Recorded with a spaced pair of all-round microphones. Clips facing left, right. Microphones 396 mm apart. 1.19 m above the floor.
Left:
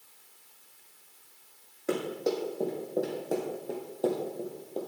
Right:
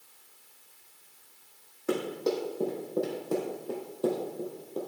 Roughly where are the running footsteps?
Centre.